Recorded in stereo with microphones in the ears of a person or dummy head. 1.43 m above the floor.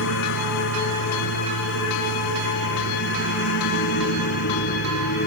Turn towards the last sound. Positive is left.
turn(degrees=60)  # may be behind; listen again after turning